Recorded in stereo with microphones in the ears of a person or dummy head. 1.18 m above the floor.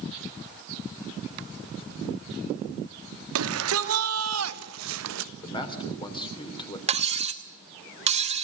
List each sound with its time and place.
3.4 s a shout: 75° right (ahead or behind), 2.5 m; by 5.3 s 65° right (ahead or behind), 1.2 m
5.4 s a man speaking: 25° left (ahead or behind), 3 m
6.9 s cutlery clinking: 35° right (ahead or behind), 1.1 m